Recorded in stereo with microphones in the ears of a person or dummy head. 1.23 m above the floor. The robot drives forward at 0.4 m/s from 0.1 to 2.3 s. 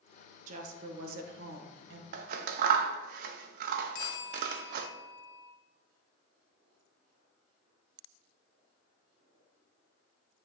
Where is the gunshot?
I don't hear a gunshot.